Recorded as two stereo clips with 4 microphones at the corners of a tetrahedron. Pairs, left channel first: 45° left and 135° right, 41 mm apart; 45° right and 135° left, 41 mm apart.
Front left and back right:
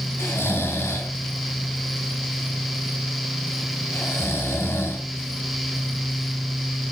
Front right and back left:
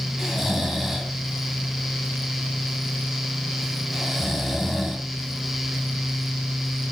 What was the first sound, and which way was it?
Snoring, 50° left.